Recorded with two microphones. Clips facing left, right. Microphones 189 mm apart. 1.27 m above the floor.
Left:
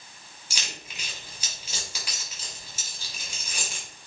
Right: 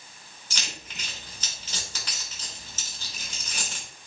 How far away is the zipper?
No zipper in this recording.